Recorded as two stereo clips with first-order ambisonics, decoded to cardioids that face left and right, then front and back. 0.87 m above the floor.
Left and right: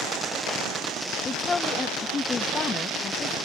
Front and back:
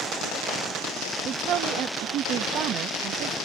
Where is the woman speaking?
155° left.